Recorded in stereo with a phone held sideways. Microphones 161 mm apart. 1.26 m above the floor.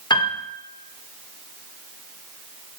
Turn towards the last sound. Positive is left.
turn(degrees=30)  # may be behind; listen again after turning